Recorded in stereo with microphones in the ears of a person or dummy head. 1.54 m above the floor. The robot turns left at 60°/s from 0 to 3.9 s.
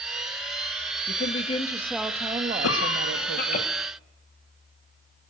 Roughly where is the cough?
Left.